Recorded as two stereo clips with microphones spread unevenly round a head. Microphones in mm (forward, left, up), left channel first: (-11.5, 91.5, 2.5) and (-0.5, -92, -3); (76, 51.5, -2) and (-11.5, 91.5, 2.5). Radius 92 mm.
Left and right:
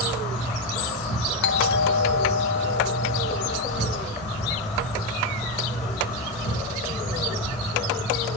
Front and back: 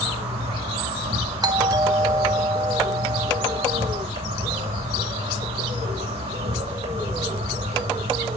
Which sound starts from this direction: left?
A doorbell, at 1.4 s.